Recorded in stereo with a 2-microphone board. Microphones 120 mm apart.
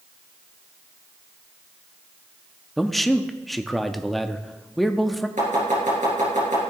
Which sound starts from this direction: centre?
A man speaking, at 2.8 s.